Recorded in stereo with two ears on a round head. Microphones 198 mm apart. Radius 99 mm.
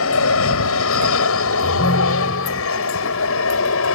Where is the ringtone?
30° left (ahead or behind).